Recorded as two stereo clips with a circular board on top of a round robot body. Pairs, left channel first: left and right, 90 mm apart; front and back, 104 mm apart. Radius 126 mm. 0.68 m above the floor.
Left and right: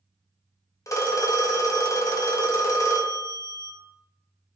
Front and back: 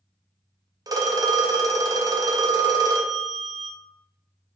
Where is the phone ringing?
135° left, 0.6 m.